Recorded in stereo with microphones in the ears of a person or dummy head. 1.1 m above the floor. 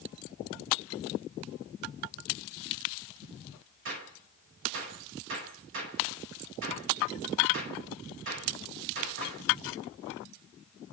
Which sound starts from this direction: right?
A gunshot, at 3.9 s.